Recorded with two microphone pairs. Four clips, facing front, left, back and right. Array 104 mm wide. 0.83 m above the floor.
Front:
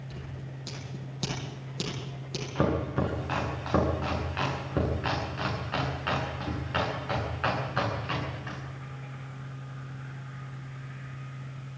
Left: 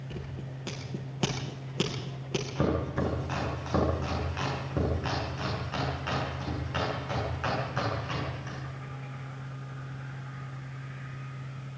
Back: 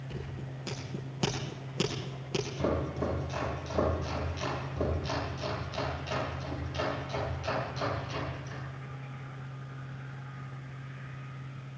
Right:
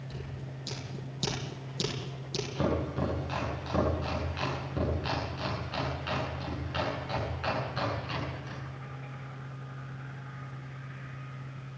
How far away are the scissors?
About 8.5 m.